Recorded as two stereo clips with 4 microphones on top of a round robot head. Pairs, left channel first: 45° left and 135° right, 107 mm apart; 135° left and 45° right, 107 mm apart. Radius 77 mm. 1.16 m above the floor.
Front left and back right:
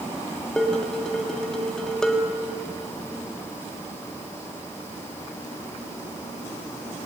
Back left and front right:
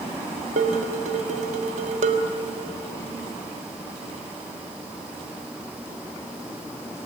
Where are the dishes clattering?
40° right, 1.4 m.